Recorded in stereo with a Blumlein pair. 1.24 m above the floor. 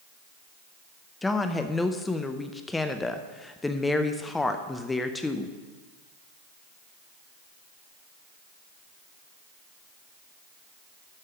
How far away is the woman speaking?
About 0.5 m.